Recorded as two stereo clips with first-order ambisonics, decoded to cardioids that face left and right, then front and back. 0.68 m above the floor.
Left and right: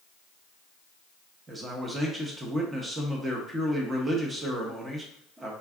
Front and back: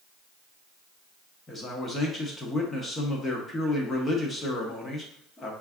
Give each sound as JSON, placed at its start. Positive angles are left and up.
{"t": 1.5, "sound": "a man speaking", "azimuth_deg": -40, "distance_m": 0.7}